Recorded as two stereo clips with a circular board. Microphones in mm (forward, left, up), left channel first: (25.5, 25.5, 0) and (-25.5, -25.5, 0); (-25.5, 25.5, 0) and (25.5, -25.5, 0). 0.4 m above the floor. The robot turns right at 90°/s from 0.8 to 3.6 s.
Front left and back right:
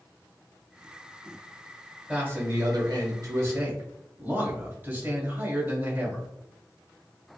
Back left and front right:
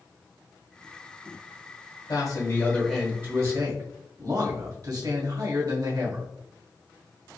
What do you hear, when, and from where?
2.1 s a man speaking: 150° left, 1.5 m; by 6.2 s 75° right, 1.5 m